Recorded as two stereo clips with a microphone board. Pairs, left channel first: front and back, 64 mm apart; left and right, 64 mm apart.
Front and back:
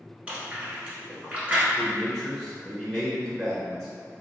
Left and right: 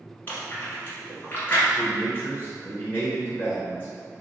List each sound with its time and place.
0.3 s chewing: 120° left, 1.2 m
1.8 s a man speaking: 75° left, 1.3 m